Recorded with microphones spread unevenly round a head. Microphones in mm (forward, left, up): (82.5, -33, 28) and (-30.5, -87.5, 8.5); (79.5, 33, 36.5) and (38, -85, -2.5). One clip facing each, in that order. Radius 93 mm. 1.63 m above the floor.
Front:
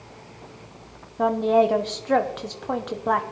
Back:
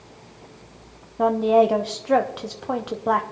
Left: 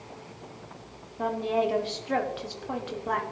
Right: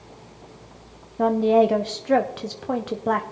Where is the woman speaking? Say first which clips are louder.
Back 2 dB, right 9 dB; 65° right, 0.7 m.